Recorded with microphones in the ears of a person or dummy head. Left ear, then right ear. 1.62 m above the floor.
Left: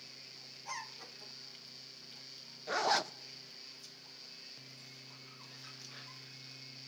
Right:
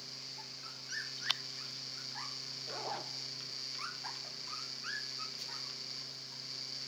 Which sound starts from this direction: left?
A zipper, at 2.7 s.